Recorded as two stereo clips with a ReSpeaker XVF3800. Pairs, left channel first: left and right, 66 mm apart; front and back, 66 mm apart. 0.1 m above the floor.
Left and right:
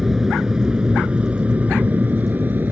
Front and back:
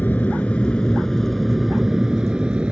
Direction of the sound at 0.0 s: 10° right.